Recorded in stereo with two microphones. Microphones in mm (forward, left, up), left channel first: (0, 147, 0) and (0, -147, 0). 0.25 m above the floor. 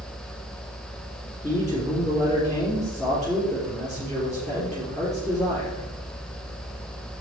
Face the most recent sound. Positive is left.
turn(degrees=10)  # may be behind; listen again after turning